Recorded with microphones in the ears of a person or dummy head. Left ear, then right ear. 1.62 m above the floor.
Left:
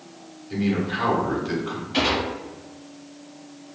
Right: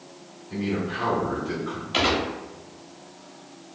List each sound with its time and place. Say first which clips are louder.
0.5 s a man speaking: left 3 dB; 15° left (ahead or behind), 1.1 m
1.9 s a gunshot: even; 40° right (ahead or behind), 0.8 m